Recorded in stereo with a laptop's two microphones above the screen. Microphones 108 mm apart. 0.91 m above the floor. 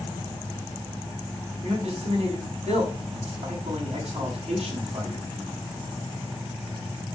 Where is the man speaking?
80° right, 6 m.